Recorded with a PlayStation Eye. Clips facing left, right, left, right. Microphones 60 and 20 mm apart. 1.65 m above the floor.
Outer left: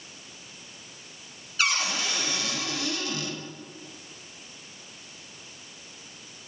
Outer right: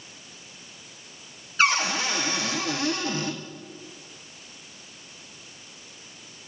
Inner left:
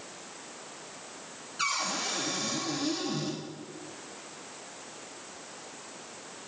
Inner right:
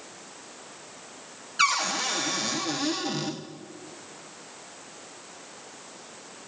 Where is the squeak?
I don't hear a squeak.